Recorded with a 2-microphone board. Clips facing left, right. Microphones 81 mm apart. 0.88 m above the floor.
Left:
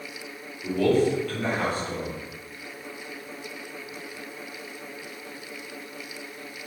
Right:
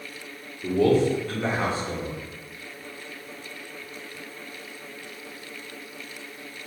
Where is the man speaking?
25° right (ahead or behind), 1.0 m.